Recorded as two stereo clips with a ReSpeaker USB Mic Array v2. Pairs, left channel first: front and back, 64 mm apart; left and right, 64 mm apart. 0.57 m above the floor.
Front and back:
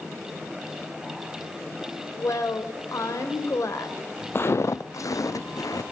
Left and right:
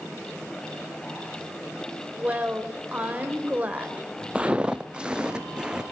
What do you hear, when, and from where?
2.2 s a woman speaking: 25° right, 3 m
4.3 s footsteps: 25° right, 0.7 m; by 5.8 s 10° right, 1.7 m